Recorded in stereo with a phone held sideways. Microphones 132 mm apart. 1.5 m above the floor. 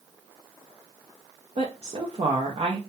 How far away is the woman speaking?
About 0.6 m.